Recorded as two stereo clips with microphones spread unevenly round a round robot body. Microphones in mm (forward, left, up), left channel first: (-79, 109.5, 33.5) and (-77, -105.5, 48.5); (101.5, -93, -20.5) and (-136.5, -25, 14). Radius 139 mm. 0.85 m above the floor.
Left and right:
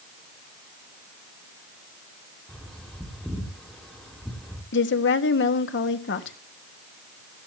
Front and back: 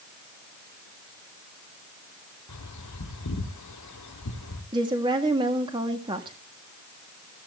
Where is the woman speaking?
85° left, 1.4 m.